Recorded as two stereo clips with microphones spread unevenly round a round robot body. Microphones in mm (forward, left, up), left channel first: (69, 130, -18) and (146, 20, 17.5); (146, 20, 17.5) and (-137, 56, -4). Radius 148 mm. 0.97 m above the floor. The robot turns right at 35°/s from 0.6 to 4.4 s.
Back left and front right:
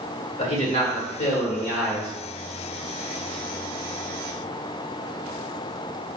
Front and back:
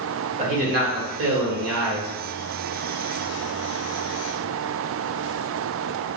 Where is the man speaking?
115° left, 1.6 m; by 2.1 s 165° left, 1.6 m.